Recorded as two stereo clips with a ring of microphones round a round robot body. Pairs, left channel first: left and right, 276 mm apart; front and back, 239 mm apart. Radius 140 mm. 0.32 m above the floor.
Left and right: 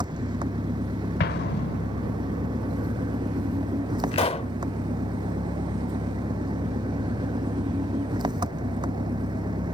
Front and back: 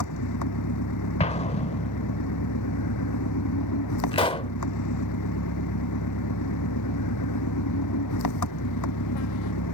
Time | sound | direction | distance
0.0 | an engine running | 15° right | ?
1.2 | an explosion | 55° left | ?
4.1 | a pop | 45° left | ?